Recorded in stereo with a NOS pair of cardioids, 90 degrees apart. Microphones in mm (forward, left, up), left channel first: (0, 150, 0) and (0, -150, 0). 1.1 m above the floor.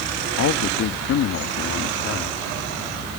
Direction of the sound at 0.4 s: 60° left.